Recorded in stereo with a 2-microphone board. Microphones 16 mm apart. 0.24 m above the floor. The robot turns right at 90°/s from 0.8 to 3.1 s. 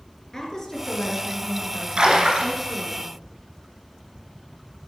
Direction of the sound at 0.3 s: 30° left.